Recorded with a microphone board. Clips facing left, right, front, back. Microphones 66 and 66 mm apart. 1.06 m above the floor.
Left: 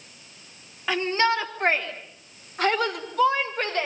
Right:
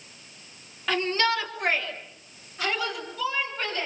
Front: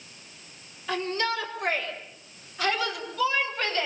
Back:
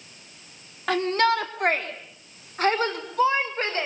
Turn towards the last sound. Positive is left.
turn(degrees=120)